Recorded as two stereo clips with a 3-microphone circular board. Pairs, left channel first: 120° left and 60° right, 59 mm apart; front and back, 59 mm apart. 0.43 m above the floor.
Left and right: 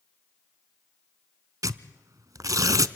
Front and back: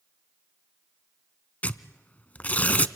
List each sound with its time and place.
1.6 s tearing paper: 60° right, 0.7 m